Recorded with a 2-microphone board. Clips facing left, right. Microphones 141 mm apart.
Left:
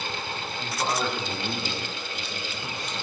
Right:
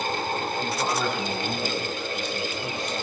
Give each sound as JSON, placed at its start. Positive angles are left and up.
{"t": 0.6, "sound": "a man speaking", "side_deg": -5, "distance_m": 10.0}